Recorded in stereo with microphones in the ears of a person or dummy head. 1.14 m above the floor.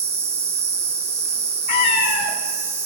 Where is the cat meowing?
55° left (ahead or behind), 1.3 m.